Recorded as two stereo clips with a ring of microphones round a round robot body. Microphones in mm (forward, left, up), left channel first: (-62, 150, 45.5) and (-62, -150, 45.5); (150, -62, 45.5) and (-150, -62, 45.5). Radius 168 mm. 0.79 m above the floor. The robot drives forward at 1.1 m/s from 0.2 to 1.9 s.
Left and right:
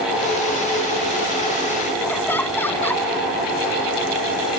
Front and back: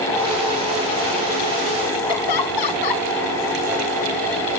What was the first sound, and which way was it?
Laughter, 5° left.